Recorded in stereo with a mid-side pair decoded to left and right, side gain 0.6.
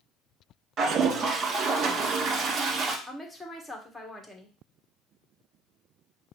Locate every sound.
0.8 s a toilet flushing: 45° right, 1.5 m
3.1 s a woman speaking: 10° left, 1.3 m